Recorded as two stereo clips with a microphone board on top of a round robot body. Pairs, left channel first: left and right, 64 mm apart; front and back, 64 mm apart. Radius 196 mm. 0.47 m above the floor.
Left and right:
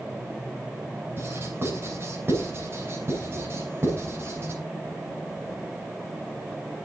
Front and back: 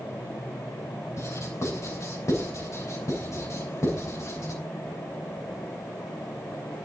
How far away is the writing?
About 7.5 m.